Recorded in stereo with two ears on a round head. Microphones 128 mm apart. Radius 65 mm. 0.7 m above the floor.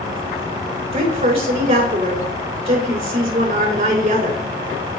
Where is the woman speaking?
45° right (ahead or behind), 3.5 m.